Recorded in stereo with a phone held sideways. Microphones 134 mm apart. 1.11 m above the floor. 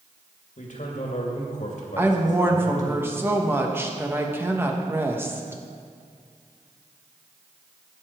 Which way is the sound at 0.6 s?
65° left (ahead or behind).